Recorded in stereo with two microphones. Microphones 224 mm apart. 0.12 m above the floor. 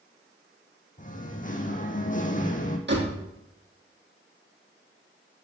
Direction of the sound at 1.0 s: 35° left (ahead or behind).